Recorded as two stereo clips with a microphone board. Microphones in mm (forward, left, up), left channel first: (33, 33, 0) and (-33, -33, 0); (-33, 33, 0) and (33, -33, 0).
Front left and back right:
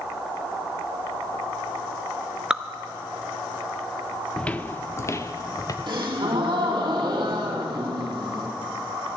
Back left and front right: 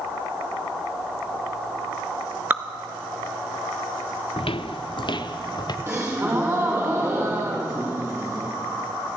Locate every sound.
2.5 s dripping: 70° right, 0.6 m
4.4 s footsteps: 125° left, 0.6 m; by 5.8 s 95° left, 1.4 m
5.9 s a gasp: 105° right, 3 m